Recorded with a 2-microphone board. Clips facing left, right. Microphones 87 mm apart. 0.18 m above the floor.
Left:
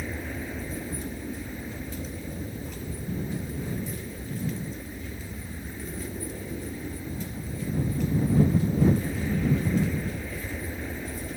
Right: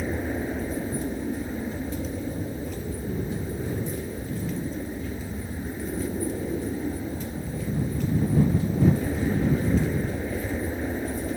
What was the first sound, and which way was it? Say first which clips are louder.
An aircraft: right 6 dB; 30° right (ahead or behind).